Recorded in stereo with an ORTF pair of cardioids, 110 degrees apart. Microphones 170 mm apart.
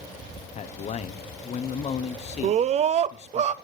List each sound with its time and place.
0.6 s a man speaking: 40° left, 0.6 m
2.4 s a scream: 40° right, 0.6 m